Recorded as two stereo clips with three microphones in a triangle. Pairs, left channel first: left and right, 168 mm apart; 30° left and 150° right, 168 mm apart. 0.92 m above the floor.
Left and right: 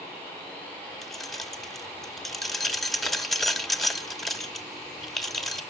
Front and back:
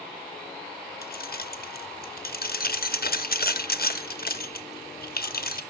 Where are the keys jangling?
Straight ahead, 0.9 m.